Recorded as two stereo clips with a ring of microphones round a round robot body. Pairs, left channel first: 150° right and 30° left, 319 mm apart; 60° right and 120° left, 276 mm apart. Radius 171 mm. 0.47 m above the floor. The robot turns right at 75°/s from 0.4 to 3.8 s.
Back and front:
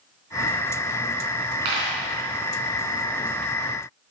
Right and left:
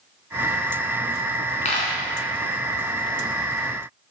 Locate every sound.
1.6 s a dropped coin: 5° left, 3.5 m; by 1.9 s 30° left, 3.5 m